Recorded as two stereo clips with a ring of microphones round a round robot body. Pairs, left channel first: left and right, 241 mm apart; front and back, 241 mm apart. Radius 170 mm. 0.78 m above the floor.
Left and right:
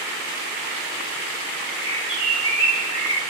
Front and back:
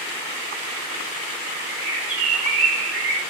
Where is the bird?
160° left, 3 m.